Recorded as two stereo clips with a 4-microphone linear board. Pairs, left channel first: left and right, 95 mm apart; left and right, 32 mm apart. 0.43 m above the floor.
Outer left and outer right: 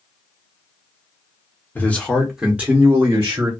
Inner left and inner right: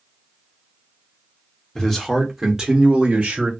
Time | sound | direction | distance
1.8 | a man speaking | 20° left (ahead or behind) | 0.8 m